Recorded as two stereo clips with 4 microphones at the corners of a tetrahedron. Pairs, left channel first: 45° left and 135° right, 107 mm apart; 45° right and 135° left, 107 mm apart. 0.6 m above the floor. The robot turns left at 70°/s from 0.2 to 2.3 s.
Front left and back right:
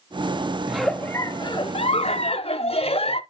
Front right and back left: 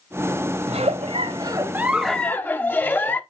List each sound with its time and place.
0.7 s a giggle: 140° left, 0.7 m; by 3.2 s 25° left, 0.7 m